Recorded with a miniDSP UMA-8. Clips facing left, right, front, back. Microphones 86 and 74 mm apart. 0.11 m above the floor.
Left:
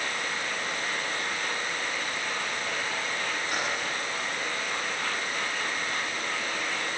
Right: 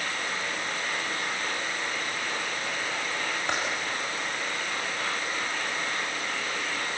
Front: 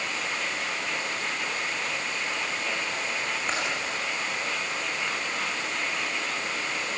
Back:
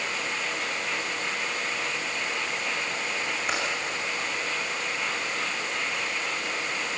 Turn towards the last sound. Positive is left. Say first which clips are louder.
# right 4 dB, back 1 dB
turn(degrees=-100)